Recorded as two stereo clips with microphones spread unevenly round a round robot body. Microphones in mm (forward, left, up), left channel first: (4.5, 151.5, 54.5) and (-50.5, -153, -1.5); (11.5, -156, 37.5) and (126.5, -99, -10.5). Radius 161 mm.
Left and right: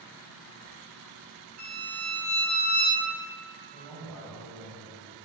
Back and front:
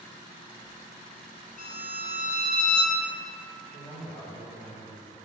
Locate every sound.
1.6 s a violin: 115° right, 2 m
3.7 s a man speaking: 175° right, 1.9 m